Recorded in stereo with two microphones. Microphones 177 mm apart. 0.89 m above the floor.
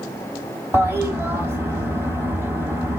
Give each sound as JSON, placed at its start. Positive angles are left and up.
{"t": 0.7, "sound": "a toilet flushing", "side_deg": -15, "distance_m": 2.0}